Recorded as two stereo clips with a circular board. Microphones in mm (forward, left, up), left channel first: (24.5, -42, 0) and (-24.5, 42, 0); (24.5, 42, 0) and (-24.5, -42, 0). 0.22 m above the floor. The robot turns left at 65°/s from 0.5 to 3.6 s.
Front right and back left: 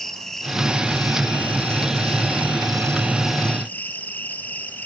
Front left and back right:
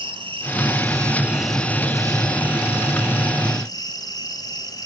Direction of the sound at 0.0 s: 145° right.